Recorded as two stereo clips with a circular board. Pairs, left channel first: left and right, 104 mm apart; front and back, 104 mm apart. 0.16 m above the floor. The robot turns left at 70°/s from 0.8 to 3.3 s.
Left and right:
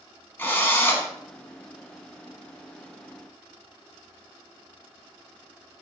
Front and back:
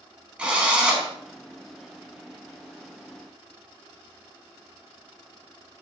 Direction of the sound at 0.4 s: 115° left.